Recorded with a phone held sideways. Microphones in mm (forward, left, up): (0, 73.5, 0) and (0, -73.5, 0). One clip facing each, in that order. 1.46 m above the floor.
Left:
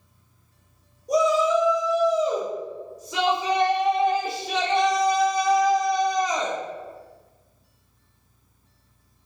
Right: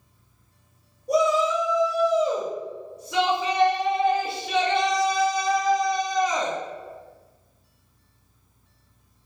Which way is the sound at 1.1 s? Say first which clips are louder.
Left 1 dB; 70° right (ahead or behind).